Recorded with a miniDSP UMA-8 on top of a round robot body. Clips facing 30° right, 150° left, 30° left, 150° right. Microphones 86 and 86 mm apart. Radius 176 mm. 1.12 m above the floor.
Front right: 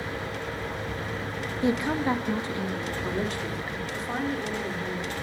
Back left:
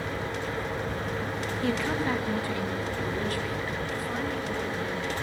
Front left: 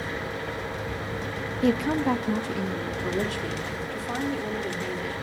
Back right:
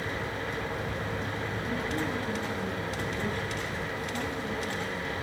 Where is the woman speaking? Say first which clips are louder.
Front right 4 dB, front left 11 dB; 40° left, 1.7 m; by 5.2 s 35° left, 4.5 m.